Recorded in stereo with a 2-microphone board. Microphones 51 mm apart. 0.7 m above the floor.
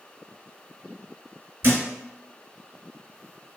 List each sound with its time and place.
1.6 s a thud: 45° right (ahead or behind), 1.3 m